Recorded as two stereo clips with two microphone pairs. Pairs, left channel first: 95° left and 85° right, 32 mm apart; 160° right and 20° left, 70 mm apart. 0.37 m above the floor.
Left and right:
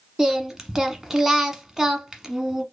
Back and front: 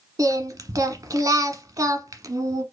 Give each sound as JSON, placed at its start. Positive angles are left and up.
{"t": 0.2, "sound": "singing", "azimuth_deg": -15, "distance_m": 1.0}